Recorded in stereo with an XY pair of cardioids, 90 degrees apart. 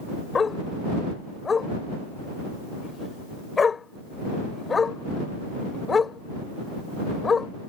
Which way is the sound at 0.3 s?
40° left.